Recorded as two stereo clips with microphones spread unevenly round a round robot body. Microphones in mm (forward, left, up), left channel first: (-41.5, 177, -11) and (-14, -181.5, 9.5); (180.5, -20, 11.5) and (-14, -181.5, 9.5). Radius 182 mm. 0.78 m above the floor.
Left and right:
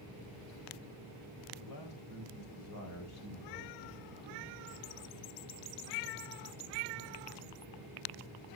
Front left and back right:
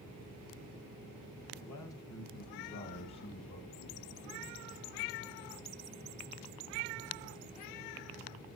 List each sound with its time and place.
1.6 s a man speaking: 65° left, 4.5 m; by 4.6 s 35° left, 6 m